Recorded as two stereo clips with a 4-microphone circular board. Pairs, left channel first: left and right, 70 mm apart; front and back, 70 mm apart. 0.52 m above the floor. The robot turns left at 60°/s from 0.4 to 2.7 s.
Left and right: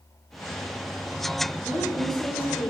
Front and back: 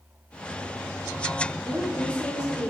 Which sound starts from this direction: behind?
A woman speaking, at 1.6 s.